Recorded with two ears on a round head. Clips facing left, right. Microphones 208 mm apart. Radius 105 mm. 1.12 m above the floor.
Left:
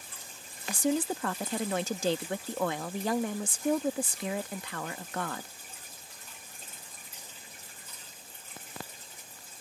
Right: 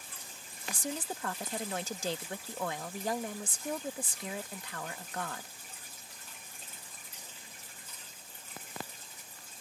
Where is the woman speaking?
55° left (ahead or behind).